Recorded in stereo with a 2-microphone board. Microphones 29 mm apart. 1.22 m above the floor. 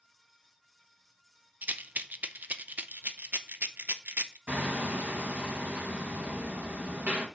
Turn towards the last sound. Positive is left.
turn(degrees=-75)  # may be behind; listen again after turning